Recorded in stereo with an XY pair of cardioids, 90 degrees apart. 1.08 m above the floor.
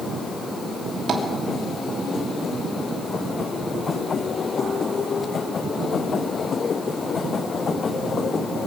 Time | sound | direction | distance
1.1 | tapping | 40° right | 2.5 m